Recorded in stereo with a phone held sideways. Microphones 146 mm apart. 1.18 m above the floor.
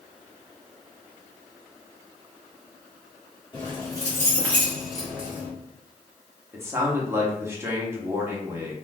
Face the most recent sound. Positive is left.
turn(degrees=-20)  # may be behind; listen again after turning